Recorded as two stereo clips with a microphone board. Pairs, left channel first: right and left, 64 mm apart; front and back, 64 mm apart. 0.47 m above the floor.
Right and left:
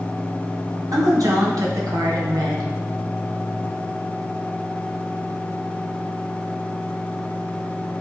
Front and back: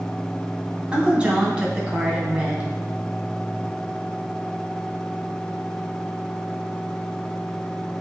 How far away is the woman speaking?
About 3 m.